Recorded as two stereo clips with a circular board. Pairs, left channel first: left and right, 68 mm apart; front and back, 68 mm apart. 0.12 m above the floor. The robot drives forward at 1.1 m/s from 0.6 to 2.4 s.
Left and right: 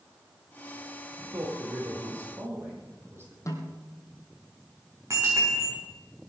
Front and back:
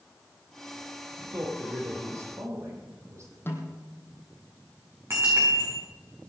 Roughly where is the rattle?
No rattle in this recording.